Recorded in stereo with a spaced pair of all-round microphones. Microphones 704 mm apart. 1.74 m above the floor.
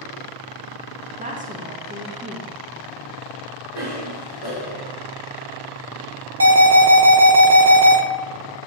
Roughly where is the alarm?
Right.